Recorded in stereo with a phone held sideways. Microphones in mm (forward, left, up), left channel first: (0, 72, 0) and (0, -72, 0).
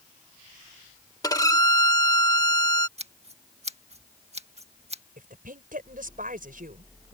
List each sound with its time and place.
1.2 s a violin: 25° left (ahead or behind)
3.0 s scissors: 50° right (ahead or behind)
5.2 s a woman speaking: 75° right (ahead or behind)